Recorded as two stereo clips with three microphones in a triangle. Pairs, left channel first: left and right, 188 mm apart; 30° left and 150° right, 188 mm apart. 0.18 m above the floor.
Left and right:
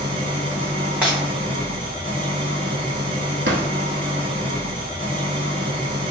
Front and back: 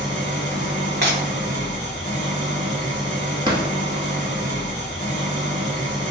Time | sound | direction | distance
0.0 | an engine running | 135° right | 0.9 m
1.0 | breaking glass | 170° right | 1.0 m
3.5 | a drawer | 85° right | 0.5 m